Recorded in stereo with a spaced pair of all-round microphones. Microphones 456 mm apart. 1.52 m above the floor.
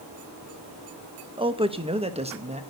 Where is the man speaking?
10° right (ahead or behind), 1.4 m; by 2.6 s 15° right (ahead or behind), 2 m.